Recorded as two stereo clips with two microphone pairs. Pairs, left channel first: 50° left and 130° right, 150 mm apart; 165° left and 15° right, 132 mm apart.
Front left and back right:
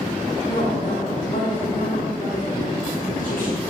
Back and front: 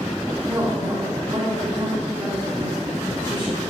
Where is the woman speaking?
35° left, 3 m.